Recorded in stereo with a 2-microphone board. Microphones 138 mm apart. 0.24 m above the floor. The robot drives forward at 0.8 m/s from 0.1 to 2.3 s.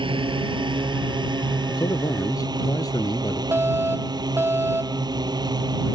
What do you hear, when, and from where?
0.0 s a drone: 40° right (ahead or behind); by 6.0 s 30° right (ahead or behind)
1.7 s a man speaking: 30° left (ahead or behind)
3.5 s a fire alarm: 15° right (ahead or behind)